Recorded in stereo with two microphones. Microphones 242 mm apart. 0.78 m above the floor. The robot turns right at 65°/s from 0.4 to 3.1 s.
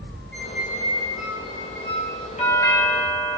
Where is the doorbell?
150° left, 2 m; by 3.4 s 165° right, 2 m.